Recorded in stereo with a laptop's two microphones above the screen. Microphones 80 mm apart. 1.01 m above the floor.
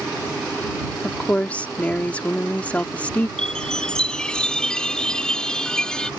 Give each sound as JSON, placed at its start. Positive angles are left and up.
{"t": 1.0, "sound": "a woman speaking", "side_deg": 20}
{"t": 3.4, "sound": "a chime", "side_deg": 10}